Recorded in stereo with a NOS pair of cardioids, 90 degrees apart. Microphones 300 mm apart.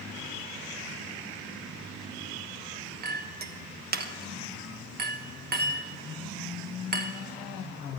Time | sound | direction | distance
3.0 | a clink | 35° right | 1.1 m